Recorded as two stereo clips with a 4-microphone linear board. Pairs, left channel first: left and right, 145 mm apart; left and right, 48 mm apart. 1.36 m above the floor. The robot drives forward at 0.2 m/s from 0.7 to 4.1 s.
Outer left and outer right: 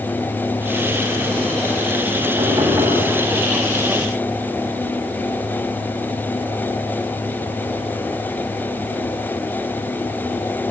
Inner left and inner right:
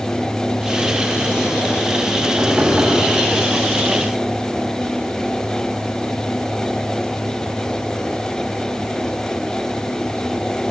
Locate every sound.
2.4 s knocking: 25° right (ahead or behind), 8.5 m; by 3.0 s 20° right (ahead or behind), 8.5 m